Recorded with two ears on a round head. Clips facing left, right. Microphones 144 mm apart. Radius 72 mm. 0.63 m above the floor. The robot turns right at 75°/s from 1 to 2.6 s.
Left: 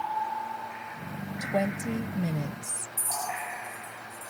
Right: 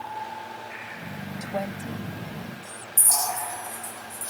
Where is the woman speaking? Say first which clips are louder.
Left 3 dB; 10° left; by 2.9 s 100° left.